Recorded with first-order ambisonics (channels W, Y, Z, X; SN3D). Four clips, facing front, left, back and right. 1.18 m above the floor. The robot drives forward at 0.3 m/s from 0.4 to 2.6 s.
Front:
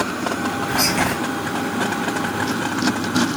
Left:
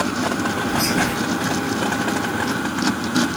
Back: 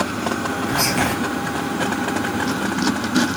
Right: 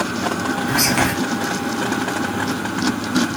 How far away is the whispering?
About 0.8 m.